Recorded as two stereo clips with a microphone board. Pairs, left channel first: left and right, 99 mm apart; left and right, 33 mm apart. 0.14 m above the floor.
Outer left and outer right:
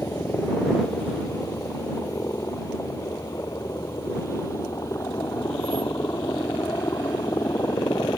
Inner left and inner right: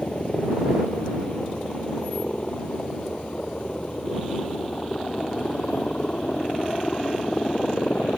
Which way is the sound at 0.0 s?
25° left (ahead or behind).